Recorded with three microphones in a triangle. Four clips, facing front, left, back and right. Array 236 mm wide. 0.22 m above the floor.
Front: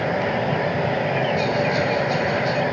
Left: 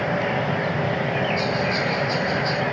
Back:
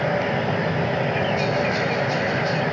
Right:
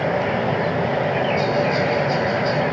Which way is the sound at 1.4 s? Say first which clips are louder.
Right 4 dB, front 1 dB; straight behind.